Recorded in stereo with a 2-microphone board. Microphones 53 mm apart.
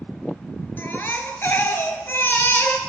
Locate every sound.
0.8 s a baby crying: 45° left (ahead or behind), 0.8 m